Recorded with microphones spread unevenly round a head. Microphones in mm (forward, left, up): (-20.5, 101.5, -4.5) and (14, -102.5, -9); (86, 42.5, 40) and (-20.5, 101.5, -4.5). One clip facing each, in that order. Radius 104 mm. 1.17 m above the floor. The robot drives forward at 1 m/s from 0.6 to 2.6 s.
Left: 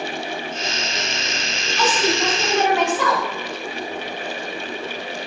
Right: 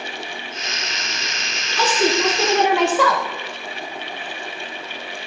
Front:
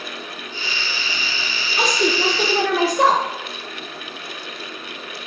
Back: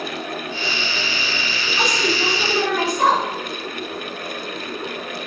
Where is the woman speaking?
35° right, 2 m; by 3.2 s 55° right, 1.4 m.